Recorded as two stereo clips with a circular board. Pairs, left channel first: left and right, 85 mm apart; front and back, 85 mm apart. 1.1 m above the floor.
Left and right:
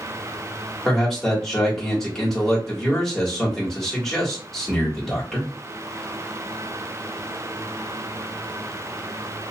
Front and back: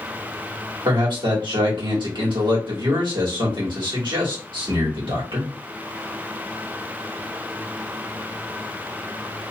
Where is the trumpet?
No trumpet in this recording.